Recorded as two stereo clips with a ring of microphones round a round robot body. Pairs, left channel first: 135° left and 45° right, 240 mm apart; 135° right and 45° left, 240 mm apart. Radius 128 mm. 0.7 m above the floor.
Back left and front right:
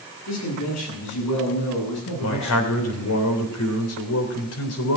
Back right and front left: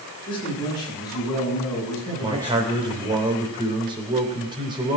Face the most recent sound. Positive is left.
turn(degrees=115)